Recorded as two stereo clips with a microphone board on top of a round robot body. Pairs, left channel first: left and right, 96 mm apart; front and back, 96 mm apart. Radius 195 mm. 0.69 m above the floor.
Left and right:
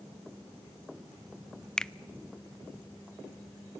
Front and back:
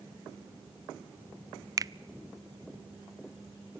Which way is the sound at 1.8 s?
165° left.